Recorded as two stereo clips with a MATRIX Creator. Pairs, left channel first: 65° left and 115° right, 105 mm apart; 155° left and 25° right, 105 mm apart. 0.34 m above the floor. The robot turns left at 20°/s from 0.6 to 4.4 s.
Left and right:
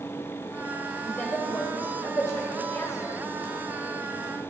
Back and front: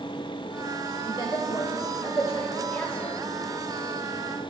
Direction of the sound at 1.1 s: 135° left.